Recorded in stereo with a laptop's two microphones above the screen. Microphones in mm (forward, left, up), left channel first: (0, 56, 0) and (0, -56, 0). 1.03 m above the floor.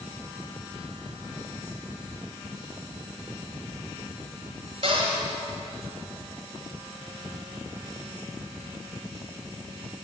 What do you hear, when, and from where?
4.8 s a cupboard door: 60° right (ahead or behind), 1.9 m